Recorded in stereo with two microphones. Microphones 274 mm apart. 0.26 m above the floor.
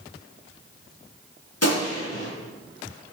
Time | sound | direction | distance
1.6 | a gunshot | 70° left (ahead or behind) | 3 m